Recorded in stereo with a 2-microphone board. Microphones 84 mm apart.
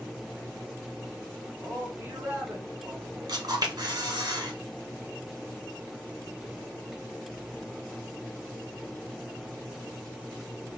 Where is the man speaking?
30° right (ahead or behind), 1.1 m.